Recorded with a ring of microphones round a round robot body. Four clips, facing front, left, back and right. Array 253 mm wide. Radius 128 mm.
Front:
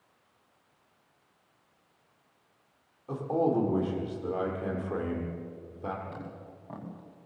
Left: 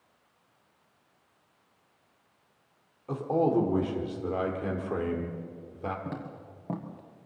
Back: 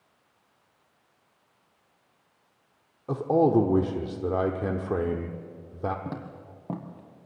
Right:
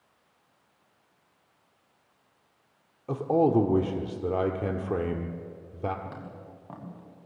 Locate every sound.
3.1 s a man speaking: 145° right, 1.4 m
6.0 s footsteps: 160° left, 3 m; by 7.3 s 125° left, 2.5 m